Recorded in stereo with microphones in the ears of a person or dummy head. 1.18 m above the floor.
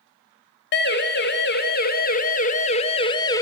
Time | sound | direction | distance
0.7 | a siren | 55° left (ahead or behind) | 2 m